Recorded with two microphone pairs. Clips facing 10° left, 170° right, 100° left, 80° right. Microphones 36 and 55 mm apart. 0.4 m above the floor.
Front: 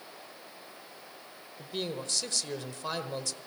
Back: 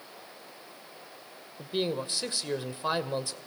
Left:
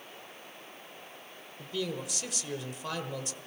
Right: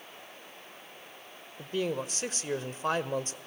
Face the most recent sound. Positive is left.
turn(degrees=-110)